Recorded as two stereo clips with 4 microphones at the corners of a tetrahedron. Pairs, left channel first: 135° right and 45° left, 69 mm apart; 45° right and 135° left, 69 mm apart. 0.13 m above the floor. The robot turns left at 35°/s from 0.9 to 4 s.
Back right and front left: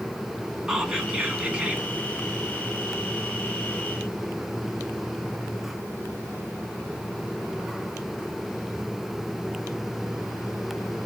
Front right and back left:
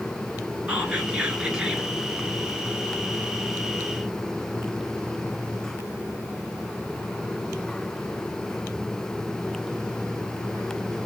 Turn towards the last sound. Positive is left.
turn(degrees=0)